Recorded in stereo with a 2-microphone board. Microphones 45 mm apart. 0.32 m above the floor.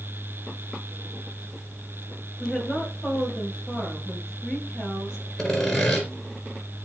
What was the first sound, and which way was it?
A woman speaking, 10° left (ahead or behind).